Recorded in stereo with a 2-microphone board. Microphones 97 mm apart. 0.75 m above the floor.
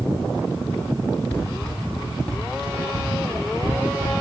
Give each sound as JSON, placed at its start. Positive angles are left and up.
{"t": 1.3, "sound": "running footsteps", "side_deg": 20, "distance_m": 3.5}